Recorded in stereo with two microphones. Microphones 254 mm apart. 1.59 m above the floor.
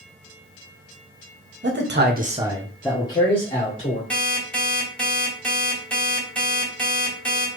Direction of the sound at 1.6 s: 45° right (ahead or behind).